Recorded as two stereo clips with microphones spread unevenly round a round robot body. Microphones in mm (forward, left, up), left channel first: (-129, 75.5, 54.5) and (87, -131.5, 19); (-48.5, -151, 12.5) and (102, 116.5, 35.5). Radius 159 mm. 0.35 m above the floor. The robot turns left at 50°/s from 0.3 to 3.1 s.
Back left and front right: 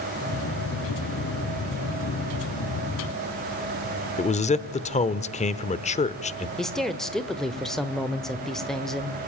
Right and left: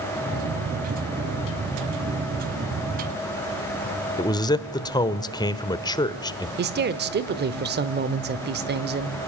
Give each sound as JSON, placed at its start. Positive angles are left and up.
{"t": 4.2, "sound": "a man speaking", "azimuth_deg": -170, "distance_m": 1.0}
{"t": 6.6, "sound": "a man speaking", "azimuth_deg": 40, "distance_m": 1.3}